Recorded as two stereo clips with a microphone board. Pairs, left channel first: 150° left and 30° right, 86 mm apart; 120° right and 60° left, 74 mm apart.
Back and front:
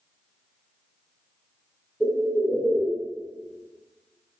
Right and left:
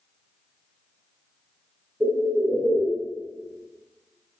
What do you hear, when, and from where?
2.0 s a bird: 60° left, 1.2 m